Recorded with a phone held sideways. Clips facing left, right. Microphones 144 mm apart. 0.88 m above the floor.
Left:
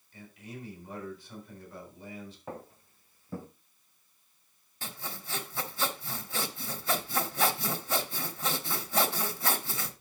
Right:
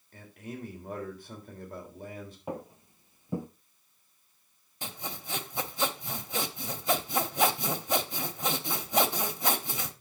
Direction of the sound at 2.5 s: 15° right (ahead or behind).